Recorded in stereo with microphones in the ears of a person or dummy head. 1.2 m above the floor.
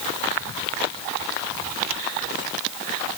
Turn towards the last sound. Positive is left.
No sound to turn to.